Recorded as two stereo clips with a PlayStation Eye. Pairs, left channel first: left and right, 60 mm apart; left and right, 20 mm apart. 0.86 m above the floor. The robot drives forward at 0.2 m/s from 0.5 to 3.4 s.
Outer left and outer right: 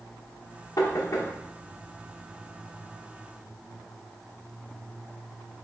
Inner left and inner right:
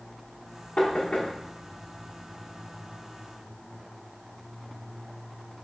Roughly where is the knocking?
Left.